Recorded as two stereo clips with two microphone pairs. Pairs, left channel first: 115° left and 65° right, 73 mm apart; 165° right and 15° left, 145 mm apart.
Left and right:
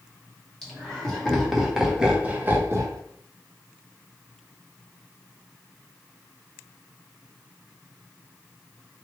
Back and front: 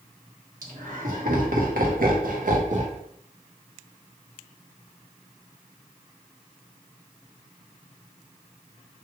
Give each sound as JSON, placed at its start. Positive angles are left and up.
{"t": 0.6, "sound": "laughter", "azimuth_deg": 35, "distance_m": 1.5}